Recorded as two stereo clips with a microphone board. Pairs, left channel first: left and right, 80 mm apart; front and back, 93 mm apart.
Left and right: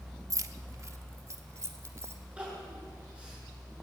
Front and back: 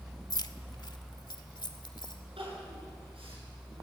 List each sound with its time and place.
0.3 s keys jangling: 45° right, 1.0 m; by 2.2 s 35° right, 2.5 m
2.4 s crying: 165° right, 9.5 m